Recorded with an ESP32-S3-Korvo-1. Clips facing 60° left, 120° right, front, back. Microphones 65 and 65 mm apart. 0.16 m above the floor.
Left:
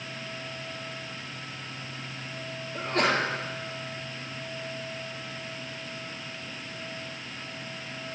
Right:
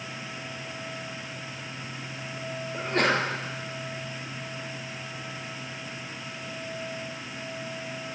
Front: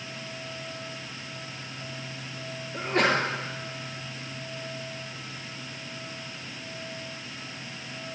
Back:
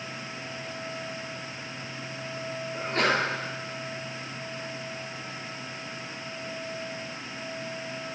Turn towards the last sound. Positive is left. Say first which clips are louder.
# right 1 dB, front 2 dB
turn(degrees=-65)